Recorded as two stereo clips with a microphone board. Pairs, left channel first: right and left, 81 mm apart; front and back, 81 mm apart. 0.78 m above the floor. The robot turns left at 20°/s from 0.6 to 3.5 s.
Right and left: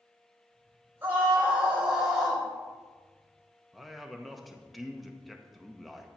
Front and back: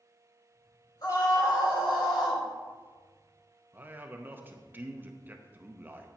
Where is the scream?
25° left, 4 m; by 2.4 s straight ahead, 4 m.